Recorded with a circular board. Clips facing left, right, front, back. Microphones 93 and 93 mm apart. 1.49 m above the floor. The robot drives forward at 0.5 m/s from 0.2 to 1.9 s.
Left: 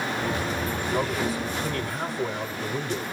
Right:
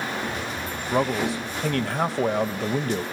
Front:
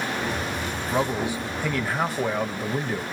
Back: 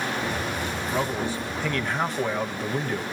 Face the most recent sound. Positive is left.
turn(degrees=-85)